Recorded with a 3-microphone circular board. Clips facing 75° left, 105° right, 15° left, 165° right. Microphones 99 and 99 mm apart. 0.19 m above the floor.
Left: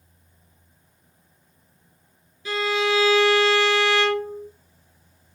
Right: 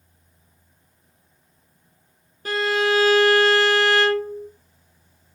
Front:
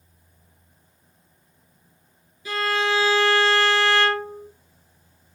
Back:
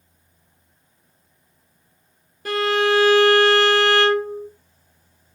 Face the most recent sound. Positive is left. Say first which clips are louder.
# right 2 dB, back 5 dB
turn(degrees=-140)